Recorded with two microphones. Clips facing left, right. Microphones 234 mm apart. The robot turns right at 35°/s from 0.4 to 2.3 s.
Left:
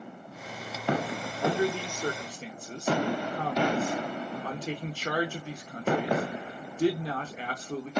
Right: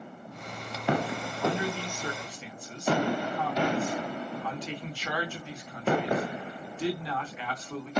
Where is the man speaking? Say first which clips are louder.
Left 3 dB; 35° left (ahead or behind), 0.9 m; by 7.9 s 45° left (ahead or behind), 0.9 m.